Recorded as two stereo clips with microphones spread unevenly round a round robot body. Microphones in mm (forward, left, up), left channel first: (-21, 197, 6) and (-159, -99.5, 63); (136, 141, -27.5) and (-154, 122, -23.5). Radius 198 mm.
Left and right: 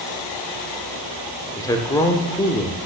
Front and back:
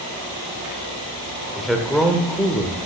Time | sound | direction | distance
1.6 | a man speaking | 90° left | 0.8 m